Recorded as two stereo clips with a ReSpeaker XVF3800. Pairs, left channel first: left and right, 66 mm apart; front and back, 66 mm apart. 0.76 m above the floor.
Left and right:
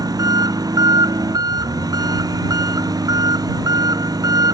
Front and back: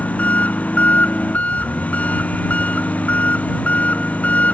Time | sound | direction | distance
0.0 | an engine running | 70° right | ?